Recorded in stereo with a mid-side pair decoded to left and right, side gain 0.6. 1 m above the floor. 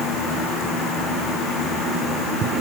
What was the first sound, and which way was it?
Only background noise.